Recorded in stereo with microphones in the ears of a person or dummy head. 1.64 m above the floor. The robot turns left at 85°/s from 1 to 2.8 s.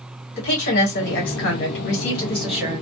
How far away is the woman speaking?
About 1.4 m.